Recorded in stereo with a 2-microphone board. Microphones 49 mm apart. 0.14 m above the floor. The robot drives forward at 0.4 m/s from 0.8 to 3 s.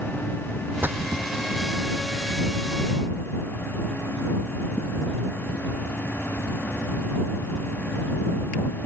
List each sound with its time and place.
0.8 s a splash: 45° right (ahead or behind)